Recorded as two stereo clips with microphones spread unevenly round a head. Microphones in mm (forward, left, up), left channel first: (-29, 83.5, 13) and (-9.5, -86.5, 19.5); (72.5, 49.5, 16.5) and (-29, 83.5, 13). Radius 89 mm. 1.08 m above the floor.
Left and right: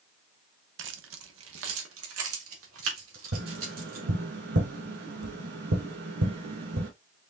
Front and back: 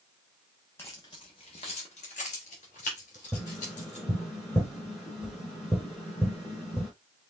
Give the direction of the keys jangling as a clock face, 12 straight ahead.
3 o'clock.